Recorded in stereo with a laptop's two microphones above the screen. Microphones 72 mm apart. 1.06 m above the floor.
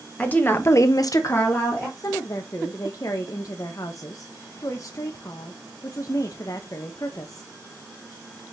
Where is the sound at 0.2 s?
20° left (ahead or behind), 1.3 m; by 1.9 s 15° left (ahead or behind), 1.4 m.